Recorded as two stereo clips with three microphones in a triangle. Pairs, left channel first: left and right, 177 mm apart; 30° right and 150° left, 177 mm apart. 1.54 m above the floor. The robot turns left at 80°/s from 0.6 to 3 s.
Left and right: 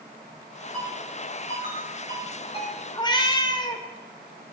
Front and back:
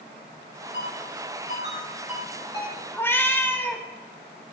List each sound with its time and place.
0.7 s a ringtone: 175° left, 5.5 m; by 2.8 s 15° left, 5.5 m
2.9 s a cat meowing: 45° left, 1.1 m; by 3.9 s 40° left, 1.1 m